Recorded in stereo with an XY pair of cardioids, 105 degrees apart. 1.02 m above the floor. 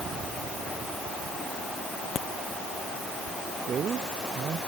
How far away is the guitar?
I don't hear a guitar.